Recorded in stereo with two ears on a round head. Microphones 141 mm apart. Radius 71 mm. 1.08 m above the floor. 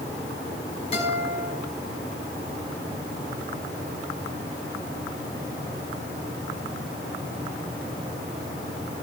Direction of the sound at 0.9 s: 40° left (ahead or behind).